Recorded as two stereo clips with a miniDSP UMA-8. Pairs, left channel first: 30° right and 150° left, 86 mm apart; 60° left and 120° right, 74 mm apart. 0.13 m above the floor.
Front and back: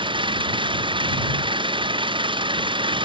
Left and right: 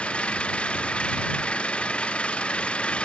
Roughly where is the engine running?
Behind left.